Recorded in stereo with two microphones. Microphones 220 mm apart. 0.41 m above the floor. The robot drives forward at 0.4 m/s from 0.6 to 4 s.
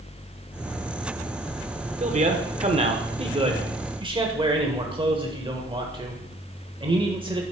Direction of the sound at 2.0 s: 30° right (ahead or behind).